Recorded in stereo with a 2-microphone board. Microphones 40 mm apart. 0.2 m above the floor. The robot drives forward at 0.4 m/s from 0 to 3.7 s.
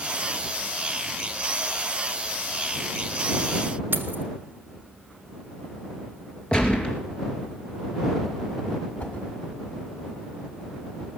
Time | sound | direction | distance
3.9 | keys jangling | 55° right (ahead or behind) | 1.6 m
6.5 | a gunshot | 25° left (ahead or behind) | 2.5 m
9.0 | a whoosh | 45° left (ahead or behind) | 2 m